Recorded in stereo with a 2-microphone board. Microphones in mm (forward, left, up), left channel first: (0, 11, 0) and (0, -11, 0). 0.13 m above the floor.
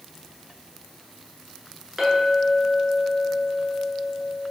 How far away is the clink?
About 1.0 m.